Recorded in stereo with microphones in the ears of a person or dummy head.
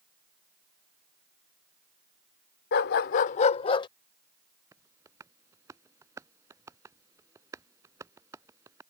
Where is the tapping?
15° right (ahead or behind).